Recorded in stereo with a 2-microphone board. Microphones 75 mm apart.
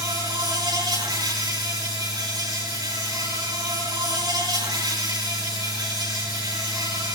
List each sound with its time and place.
0.0 s an insect: 70° right (ahead or behind), 7 m